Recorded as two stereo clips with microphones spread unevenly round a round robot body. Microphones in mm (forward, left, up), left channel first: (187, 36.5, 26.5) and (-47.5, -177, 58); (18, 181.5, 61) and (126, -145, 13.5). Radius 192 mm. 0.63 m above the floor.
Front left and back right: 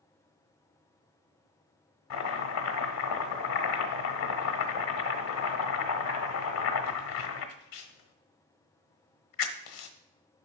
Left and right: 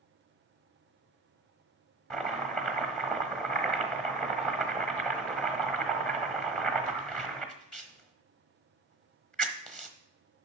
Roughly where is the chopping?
Ahead.